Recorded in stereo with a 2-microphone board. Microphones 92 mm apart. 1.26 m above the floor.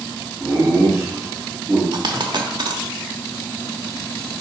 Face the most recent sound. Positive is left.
turn(degrees=-50)  # may be behind; listen again after turning